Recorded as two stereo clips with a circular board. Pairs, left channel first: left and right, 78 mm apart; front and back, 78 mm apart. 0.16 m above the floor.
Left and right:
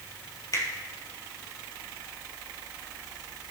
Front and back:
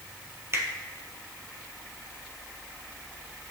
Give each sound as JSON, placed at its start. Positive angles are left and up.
{"t": 0.5, "sound": "a finger snap", "azimuth_deg": 130, "distance_m": 3.0}